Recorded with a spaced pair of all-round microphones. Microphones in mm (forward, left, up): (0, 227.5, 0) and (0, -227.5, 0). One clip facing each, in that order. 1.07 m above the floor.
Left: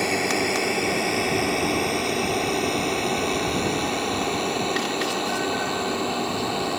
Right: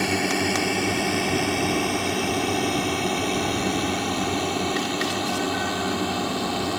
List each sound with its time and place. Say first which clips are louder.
0.0 s a drone: even; 30° right (ahead or behind)